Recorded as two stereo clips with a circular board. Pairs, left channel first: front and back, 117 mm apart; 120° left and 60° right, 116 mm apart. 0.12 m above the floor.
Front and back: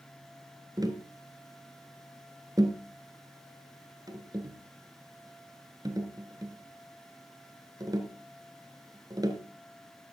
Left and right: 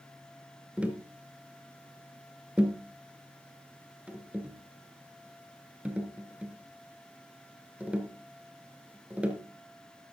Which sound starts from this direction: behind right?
Tapping, at 0.8 s.